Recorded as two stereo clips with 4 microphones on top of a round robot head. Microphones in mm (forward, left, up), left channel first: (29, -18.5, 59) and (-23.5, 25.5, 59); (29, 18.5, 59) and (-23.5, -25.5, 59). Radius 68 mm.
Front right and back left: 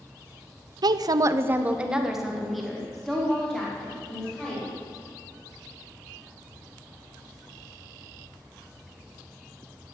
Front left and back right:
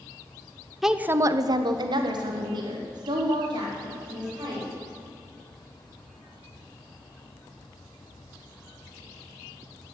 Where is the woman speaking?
135° left, 0.7 m; by 4.8 s 120° right, 4.5 m.